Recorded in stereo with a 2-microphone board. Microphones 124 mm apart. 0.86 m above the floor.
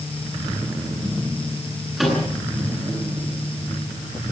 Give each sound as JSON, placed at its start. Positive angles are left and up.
{"t": 2.0, "sound": "a microwave", "side_deg": 0, "distance_m": 10.0}